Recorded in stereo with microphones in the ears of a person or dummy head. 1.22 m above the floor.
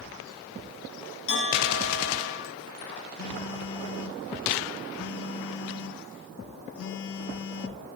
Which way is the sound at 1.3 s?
60° left (ahead or behind).